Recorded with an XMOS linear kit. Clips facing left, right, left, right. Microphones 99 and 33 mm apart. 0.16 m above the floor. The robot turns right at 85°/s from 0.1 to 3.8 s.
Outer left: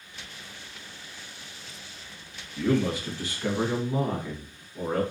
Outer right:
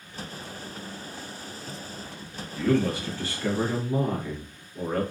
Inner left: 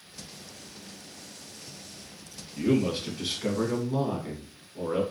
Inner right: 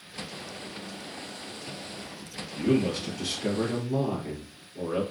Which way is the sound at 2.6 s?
10° left (ahead or behind).